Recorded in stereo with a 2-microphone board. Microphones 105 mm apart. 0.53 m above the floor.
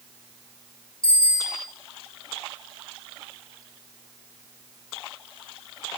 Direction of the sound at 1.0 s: 10° left (ahead or behind).